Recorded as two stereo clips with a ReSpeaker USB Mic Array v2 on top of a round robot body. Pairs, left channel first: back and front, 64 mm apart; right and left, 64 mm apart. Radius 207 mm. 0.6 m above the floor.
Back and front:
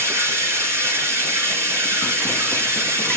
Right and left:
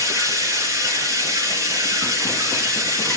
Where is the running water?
50° left, 3.5 m.